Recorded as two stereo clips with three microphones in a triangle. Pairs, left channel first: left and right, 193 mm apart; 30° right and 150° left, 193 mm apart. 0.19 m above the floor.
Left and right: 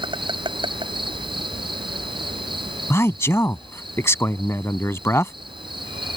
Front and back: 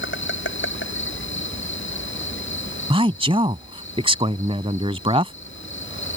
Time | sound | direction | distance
0.0 | an insect | 25° right | ?
2.9 | a man speaking | 150° left | ?